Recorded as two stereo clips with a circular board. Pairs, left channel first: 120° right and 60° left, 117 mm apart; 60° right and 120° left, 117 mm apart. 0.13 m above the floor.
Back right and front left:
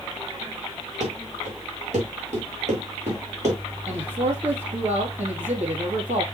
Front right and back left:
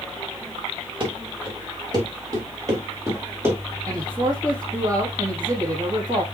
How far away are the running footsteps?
About 4 m.